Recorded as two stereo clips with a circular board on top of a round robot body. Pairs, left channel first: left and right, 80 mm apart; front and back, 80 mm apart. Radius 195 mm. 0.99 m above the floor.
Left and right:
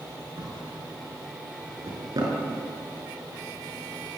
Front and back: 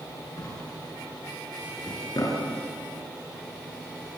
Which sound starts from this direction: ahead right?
A drawer, at 0.4 s.